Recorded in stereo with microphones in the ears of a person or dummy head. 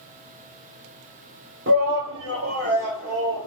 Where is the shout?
50° right (ahead or behind), 0.5 m; by 3.5 s 70° right (ahead or behind), 1.4 m.